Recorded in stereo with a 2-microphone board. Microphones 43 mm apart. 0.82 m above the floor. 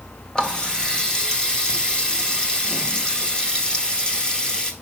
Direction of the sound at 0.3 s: 20° left (ahead or behind).